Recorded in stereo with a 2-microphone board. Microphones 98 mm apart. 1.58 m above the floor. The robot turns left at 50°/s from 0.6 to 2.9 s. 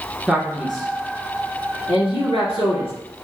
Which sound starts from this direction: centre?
A man speaking, at 0.3 s.